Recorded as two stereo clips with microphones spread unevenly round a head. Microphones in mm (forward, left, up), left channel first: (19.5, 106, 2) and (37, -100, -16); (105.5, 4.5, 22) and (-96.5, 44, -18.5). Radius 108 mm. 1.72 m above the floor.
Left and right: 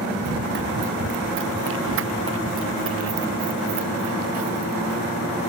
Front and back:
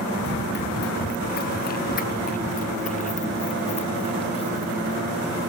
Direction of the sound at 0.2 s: 50° right.